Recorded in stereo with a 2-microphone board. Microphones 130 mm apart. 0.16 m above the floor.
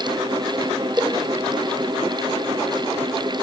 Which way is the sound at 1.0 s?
20° right (ahead or behind).